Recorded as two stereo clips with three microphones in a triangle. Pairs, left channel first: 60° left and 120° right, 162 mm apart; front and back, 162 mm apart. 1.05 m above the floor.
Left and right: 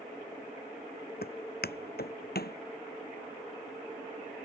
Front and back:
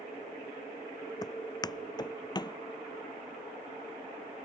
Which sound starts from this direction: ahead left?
Footsteps, at 1.2 s.